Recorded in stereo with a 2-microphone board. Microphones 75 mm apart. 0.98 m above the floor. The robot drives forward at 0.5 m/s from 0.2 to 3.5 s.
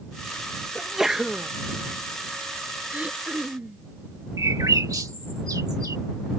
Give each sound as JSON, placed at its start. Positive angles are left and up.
{"t": 0.8, "sound": "a sneeze", "side_deg": -5}
{"t": 2.9, "sound": "throat clearing", "side_deg": -20}
{"t": 4.4, "sound": "a bird", "side_deg": -55}